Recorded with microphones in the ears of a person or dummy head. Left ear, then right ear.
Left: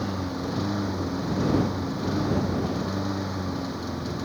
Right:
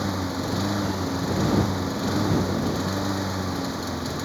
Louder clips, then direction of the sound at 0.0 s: Right 3 dB; 20° right (ahead or behind).